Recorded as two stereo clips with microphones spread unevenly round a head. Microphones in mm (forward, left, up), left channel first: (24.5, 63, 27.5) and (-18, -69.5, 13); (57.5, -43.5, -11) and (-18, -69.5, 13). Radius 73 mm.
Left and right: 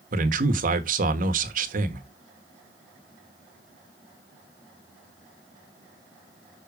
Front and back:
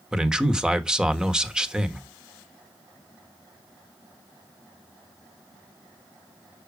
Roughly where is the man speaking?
Right.